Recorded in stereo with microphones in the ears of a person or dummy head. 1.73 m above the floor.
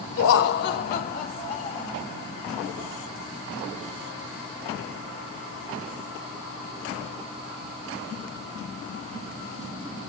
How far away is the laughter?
About 1.0 m.